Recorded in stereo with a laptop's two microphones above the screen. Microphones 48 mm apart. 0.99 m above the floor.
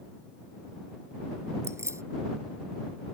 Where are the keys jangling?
90° right.